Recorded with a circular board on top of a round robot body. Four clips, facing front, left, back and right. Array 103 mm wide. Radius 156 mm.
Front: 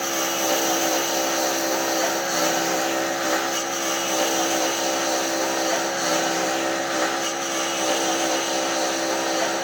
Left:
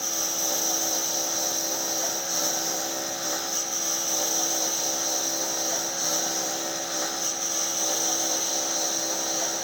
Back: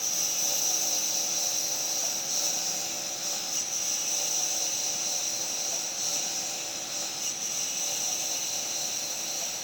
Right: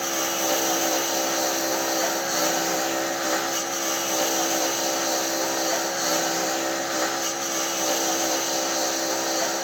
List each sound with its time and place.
0.0 s a lawn mower: 25° right; by 9.6 s 20° right